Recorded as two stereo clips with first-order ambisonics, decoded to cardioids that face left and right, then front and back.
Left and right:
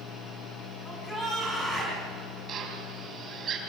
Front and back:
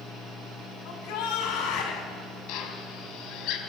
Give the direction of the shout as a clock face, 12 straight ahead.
12 o'clock.